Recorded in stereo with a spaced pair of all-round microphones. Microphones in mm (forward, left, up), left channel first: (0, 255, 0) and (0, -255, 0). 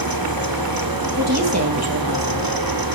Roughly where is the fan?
Right.